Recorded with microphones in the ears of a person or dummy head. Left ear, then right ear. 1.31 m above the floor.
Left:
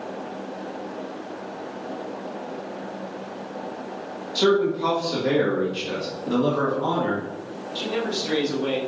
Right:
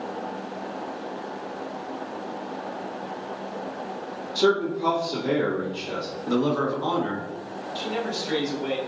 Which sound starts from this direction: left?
A man speaking, at 4.3 s.